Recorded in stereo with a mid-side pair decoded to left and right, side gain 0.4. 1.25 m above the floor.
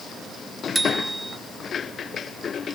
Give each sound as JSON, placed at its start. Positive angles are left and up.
{"t": 0.8, "sound": "a bicycle bell", "azimuth_deg": -15}